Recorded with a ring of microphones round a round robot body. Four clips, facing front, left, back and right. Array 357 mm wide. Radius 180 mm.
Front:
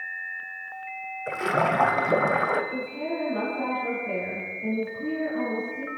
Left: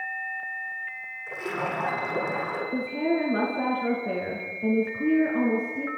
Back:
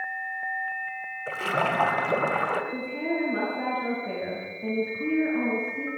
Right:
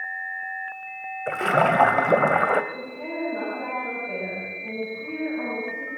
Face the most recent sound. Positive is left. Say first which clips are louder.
# left 7 dB, back 1 dB
turn(degrees=105)